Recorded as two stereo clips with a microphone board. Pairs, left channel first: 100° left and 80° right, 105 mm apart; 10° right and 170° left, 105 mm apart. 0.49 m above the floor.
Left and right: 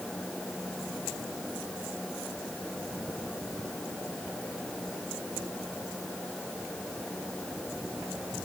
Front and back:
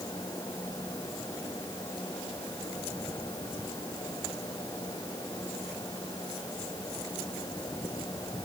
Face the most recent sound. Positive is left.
No sound to turn to.